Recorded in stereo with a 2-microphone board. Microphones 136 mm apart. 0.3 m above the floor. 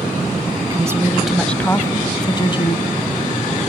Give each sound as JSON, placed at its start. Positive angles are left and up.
{"t": 0.6, "sound": "a woman speaking", "side_deg": -30, "distance_m": 1.3}